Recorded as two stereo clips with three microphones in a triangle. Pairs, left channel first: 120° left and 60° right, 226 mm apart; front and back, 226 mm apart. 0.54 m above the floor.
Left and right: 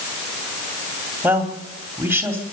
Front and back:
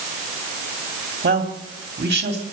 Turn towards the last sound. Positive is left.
turn(degrees=-140)